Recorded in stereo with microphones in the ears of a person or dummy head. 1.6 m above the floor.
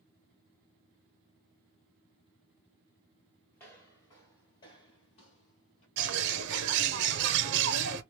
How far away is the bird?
About 0.9 m.